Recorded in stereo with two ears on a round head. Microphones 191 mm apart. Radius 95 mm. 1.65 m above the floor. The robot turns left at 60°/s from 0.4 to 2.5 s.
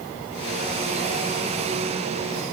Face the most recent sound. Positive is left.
No sound to turn to.